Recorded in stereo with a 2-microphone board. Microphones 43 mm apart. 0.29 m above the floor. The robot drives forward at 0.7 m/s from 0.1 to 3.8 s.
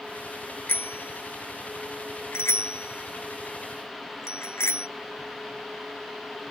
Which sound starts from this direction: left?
A bicycle bell, at 0.7 s.